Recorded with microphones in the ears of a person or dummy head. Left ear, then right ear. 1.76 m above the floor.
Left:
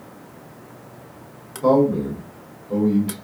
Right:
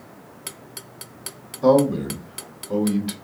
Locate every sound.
1.6 s a man speaking: 35° right (ahead or behind), 1.2 m